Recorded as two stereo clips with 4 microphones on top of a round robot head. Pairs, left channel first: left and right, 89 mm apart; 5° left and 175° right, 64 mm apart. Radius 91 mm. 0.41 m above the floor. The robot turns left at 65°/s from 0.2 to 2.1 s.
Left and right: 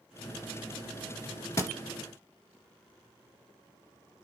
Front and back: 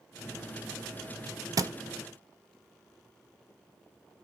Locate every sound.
1.6 s a thud: 155° left, 0.8 m; by 1.7 s 145° left, 0.8 m